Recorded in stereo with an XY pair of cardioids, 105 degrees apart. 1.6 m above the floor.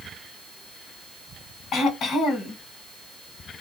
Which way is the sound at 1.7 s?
60° left.